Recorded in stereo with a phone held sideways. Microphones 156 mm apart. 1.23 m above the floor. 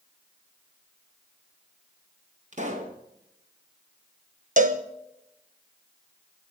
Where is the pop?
50° right (ahead or behind), 2 m.